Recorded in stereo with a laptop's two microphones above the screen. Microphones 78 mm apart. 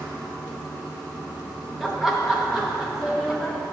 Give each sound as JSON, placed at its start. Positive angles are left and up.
{"t": 0.0, "sound": "running water", "side_deg": -50, "distance_m": 3.0}
{"t": 1.8, "sound": "laughter", "side_deg": -5, "distance_m": 0.8}